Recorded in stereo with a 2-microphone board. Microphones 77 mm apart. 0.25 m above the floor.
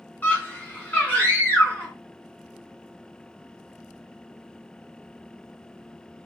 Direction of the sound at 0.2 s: 20° left (ahead or behind).